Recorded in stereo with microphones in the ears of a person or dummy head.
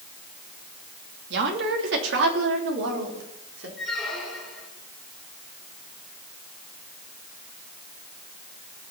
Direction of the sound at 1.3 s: 75° right (ahead or behind).